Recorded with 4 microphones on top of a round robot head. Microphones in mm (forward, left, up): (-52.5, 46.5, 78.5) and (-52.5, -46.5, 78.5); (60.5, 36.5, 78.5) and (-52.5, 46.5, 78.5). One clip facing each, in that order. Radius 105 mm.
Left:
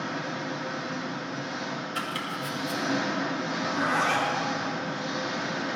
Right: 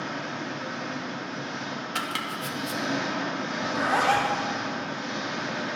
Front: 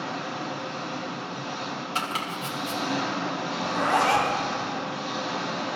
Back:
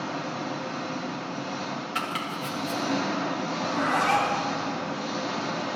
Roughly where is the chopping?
Right.